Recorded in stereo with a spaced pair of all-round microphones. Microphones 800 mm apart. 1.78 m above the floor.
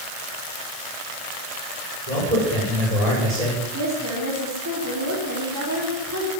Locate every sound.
2.1 s a man speaking: 45° right (ahead or behind), 7 m
3.7 s a woman speaking: 20° right (ahead or behind), 4 m